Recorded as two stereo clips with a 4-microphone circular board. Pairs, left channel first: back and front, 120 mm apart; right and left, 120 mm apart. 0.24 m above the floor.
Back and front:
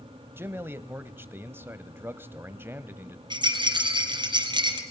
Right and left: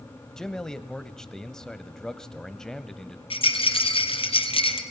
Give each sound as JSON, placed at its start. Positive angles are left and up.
{"t": 0.4, "sound": "a man speaking", "azimuth_deg": -15, "distance_m": 0.9}
{"t": 3.3, "sound": "a rattle", "azimuth_deg": -50, "distance_m": 3.0}